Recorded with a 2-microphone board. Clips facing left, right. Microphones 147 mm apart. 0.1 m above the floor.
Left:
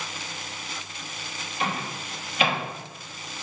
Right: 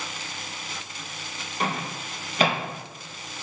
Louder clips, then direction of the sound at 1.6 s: Right 1 dB; 40° right (ahead or behind).